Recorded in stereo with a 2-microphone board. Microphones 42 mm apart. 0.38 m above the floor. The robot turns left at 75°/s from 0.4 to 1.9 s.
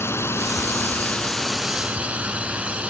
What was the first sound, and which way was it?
A drone, 85° left.